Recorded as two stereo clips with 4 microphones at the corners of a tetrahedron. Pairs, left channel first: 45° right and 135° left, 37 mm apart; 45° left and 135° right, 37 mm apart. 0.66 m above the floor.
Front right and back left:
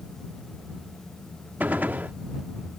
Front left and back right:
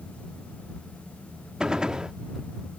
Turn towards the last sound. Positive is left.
turn(degrees=160)